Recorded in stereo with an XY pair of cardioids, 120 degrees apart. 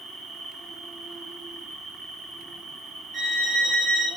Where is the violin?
60° right, 3.5 m.